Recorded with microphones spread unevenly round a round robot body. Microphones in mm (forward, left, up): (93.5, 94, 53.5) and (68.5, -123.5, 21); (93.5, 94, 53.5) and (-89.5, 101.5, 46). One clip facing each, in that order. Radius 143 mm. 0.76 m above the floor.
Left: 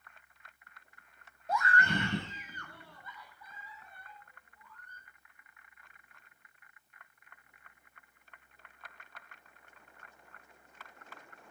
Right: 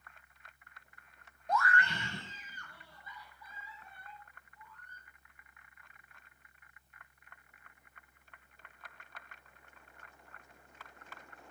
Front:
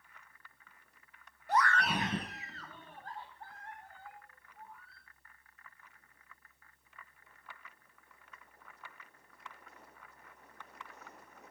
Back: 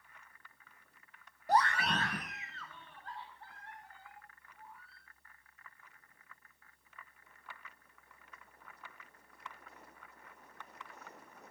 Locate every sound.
1.5 s a scream: straight behind, 0.6 m; by 5.0 s 40° left, 4.5 m